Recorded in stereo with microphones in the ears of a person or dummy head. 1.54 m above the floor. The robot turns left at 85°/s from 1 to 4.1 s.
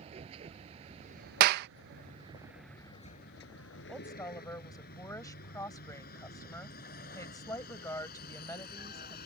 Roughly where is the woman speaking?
Centre.